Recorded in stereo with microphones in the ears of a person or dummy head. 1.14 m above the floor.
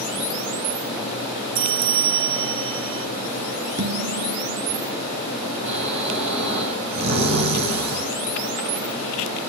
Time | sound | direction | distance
1.6 | a bell | 25° right (ahead or behind) | 0.5 m
3.8 | dishes clattering | 60° right (ahead or behind) | 1.9 m
5.7 | snoring | 60° right (ahead or behind) | 5 m